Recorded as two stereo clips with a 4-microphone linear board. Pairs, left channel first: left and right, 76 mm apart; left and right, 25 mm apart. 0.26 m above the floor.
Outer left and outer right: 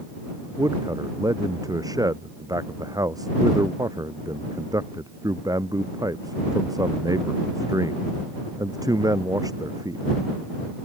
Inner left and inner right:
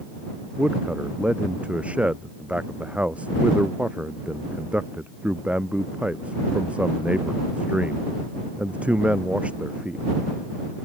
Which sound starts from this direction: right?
A man speaking, at 0.6 s.